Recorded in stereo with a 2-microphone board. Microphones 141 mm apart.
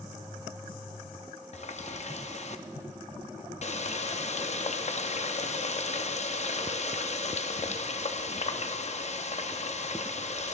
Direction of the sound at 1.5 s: 50° left (ahead or behind).